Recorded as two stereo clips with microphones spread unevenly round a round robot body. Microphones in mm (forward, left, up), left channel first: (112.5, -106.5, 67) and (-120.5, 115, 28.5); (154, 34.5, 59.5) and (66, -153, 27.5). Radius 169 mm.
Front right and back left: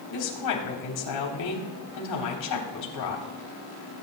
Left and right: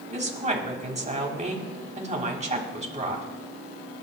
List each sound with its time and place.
0.1 s a woman speaking: 60° right, 3.5 m